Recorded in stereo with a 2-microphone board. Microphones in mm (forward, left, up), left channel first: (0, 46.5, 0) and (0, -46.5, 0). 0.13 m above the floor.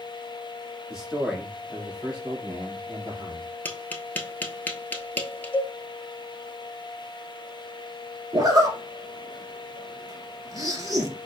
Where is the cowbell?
20° left (ahead or behind), 1.2 m.